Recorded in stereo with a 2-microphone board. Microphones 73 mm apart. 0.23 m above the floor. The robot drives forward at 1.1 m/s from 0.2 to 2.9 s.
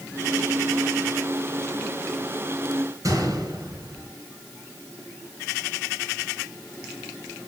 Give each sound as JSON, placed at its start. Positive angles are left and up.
{"t": 3.0, "sound": "a gunshot", "side_deg": -55, "distance_m": 3.5}